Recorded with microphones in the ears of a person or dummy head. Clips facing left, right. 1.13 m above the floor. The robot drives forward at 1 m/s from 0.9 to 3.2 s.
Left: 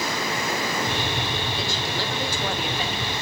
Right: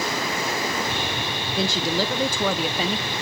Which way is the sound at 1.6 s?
50° right (ahead or behind).